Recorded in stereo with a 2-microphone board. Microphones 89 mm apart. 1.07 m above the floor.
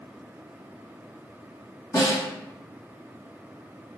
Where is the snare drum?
40° left (ahead or behind), 1.5 m.